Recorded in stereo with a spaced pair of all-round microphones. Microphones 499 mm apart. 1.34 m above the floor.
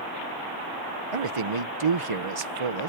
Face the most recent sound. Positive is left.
turn(degrees=-90)